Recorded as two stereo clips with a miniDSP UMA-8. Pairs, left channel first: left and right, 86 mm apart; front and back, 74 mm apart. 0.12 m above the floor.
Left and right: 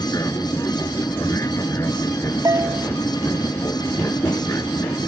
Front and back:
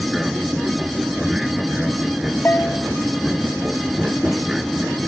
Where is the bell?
55° right.